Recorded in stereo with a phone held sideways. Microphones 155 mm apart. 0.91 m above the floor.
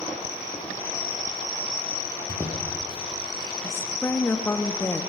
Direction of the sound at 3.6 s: 15° left (ahead or behind).